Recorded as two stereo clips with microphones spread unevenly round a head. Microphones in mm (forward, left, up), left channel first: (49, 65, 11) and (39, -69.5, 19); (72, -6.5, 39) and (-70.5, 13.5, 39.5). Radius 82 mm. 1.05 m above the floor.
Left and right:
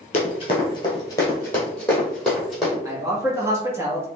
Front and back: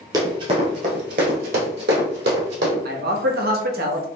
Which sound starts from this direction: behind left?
Running footsteps, at 0.1 s.